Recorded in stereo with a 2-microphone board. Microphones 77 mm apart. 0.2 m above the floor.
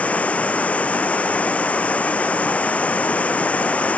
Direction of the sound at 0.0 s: 15° left (ahead or behind).